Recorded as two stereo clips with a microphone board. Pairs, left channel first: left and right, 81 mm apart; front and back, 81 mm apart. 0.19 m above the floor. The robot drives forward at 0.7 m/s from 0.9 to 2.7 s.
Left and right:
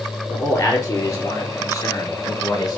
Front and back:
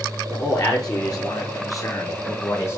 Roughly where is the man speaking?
Ahead left.